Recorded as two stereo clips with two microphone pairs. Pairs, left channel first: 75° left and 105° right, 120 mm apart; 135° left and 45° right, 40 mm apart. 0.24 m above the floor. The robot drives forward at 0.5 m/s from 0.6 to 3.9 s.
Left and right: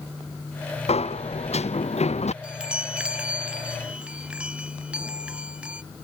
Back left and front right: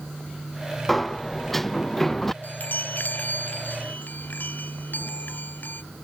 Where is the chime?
175° left.